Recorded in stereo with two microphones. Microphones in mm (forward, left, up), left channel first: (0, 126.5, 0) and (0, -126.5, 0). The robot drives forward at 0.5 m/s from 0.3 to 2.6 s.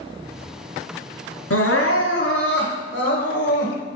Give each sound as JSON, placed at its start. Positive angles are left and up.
{"t": 1.5, "sound": "crying", "side_deg": 70, "distance_m": 1.1}